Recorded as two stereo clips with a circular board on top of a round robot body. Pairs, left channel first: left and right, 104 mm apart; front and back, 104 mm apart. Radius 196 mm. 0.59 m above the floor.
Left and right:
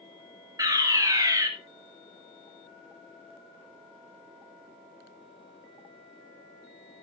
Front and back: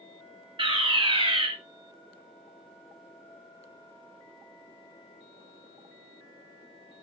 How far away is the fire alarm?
About 5 m.